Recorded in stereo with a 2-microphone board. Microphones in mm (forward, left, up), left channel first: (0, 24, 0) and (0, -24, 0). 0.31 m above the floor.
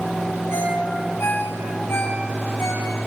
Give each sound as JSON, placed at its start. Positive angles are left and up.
{"t": 0.5, "sound": "a ringtone", "side_deg": 60, "distance_m": 6.5}